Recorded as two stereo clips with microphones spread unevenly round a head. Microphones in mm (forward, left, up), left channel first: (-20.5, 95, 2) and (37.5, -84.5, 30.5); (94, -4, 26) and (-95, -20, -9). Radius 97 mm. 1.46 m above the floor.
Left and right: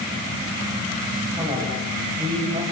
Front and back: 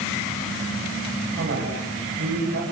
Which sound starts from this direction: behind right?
A man speaking, at 1.4 s.